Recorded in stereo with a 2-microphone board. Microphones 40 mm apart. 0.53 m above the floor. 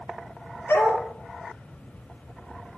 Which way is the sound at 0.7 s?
75° left (ahead or behind).